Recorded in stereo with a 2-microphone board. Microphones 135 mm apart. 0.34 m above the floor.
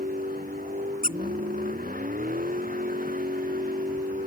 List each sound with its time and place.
0.0 s a vehicle: 80° right
1.0 s a squeak: 80° right